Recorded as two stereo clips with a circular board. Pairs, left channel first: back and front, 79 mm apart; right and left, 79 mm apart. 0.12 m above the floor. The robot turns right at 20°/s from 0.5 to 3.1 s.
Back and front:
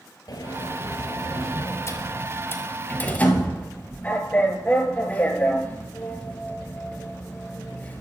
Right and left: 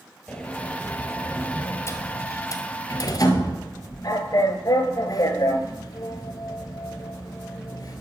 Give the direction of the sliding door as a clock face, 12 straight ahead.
5 o'clock.